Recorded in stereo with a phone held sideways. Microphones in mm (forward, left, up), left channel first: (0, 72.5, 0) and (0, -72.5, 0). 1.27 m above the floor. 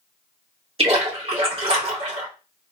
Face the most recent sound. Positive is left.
turn(degrees=-40)  # may be behind; listen again after turning